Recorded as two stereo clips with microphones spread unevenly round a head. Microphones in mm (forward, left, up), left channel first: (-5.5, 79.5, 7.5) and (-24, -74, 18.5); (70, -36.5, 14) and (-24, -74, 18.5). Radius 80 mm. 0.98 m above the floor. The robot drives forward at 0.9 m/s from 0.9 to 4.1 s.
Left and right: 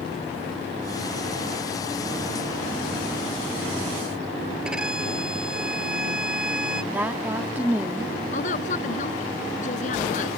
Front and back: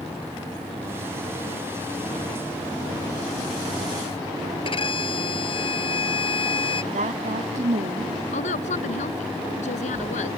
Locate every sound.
4.7 s a violin: 10° right
6.9 s a woman speaking: 175° right
8.3 s a woman speaking: 35° left